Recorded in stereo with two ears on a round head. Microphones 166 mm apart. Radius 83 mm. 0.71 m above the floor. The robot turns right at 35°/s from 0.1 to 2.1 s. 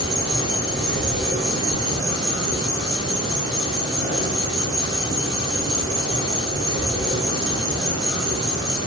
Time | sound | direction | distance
0.0 | an insect | 145° right | 1.4 m